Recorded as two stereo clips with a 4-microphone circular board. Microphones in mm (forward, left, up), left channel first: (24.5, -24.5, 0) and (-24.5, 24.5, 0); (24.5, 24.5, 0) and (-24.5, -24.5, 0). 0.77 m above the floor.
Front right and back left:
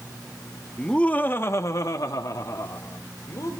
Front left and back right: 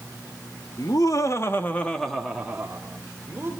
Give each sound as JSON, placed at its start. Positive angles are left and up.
{"t": 0.8, "sound": "laughter", "azimuth_deg": 35, "distance_m": 1.5}